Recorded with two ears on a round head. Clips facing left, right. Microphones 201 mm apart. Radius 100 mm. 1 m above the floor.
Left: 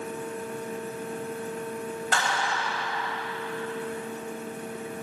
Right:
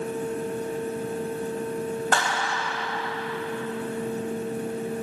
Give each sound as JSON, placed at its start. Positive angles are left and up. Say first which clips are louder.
{"t": 2.1, "sound": "a clap", "louder": "right 2 dB", "side_deg": -40, "distance_m": 5.5}